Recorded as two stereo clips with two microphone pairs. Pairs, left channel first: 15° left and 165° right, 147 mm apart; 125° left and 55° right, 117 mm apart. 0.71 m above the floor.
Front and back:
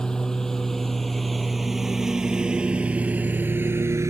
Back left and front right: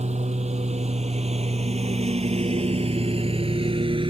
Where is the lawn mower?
70° right; by 4.1 s 95° right.